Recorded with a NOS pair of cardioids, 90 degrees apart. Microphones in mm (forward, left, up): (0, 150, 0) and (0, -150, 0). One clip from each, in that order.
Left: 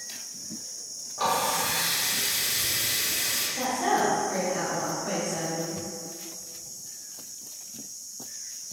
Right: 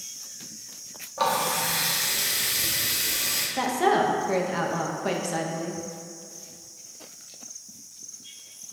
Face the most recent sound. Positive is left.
turn(degrees=-60)